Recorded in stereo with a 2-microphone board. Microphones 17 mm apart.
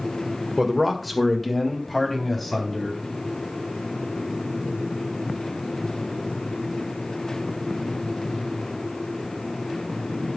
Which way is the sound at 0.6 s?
10° right (ahead or behind).